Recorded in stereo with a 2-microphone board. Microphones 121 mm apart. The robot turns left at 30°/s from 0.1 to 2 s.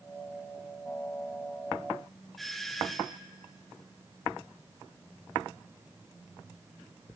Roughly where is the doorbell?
Centre.